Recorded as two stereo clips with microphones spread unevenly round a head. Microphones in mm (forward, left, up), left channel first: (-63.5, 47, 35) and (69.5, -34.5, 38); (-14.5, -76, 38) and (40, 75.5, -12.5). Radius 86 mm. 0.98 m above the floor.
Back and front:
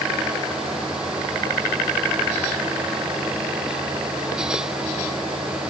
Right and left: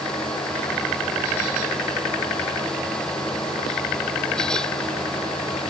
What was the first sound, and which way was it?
Only background noise.